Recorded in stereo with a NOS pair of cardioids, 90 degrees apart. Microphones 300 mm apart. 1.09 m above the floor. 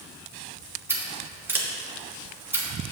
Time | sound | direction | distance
0.9 | scissors | 5° right | 1.2 m